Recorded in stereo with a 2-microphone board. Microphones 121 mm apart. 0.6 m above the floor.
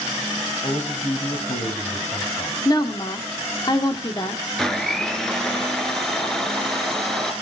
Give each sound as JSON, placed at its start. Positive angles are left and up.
{"t": 0.6, "sound": "a man speaking", "side_deg": 75, "distance_m": 4.0}
{"t": 2.6, "sound": "a woman speaking", "side_deg": 35, "distance_m": 1.6}
{"t": 4.6, "sound": "a blender", "side_deg": 5, "distance_m": 1.8}